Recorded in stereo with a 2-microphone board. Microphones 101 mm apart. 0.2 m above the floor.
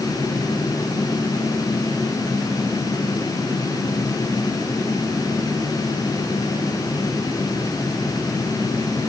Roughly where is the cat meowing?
No cat meowing in this recording.